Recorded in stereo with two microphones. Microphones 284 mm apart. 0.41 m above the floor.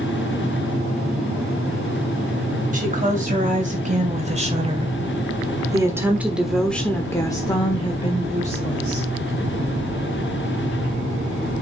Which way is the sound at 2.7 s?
30° right (ahead or behind).